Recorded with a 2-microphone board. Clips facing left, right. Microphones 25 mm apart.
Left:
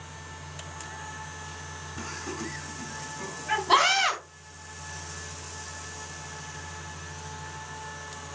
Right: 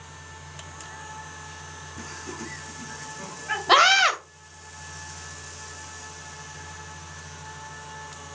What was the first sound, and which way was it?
Laughter, 20° left (ahead or behind).